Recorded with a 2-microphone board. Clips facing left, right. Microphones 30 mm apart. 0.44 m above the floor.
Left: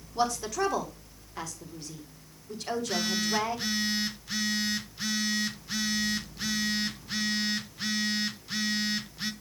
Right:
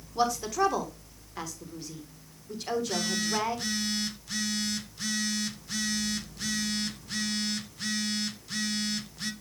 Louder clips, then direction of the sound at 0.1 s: Right 2 dB; 5° right (ahead or behind).